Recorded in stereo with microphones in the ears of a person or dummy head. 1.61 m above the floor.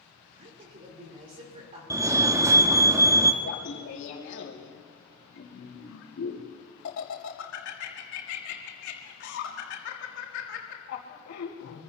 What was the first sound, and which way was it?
A woman speaking, 45° right (ahead or behind).